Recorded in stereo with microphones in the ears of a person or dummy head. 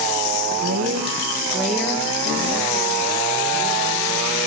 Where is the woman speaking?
55° right (ahead or behind), 1.2 m; by 4.4 s 20° left (ahead or behind), 6 m.